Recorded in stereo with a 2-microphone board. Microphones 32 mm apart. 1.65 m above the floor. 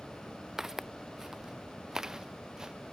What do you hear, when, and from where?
0.6 s footsteps: 10° right (ahead or behind); by 2.7 s 20° right (ahead or behind)